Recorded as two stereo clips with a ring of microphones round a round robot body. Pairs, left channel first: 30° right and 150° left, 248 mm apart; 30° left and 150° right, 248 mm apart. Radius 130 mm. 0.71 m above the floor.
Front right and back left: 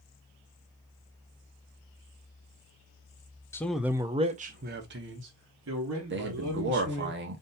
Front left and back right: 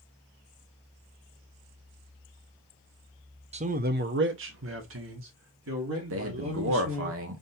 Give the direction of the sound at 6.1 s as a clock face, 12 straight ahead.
6 o'clock.